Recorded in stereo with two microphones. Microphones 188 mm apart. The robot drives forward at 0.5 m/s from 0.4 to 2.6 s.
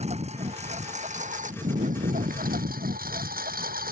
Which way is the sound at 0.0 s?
40° right (ahead or behind).